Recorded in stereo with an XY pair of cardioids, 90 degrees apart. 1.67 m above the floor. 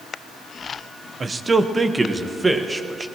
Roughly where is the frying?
No frying in this recording.